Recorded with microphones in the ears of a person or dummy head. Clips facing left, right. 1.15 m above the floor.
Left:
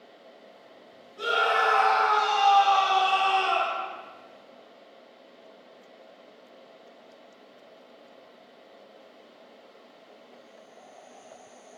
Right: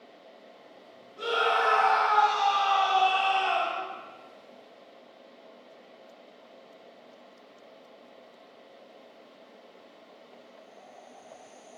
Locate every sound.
1.2 s a scream: centre (ahead or behind), 2.0 m; by 3.8 s 70° left (ahead or behind), 3.5 m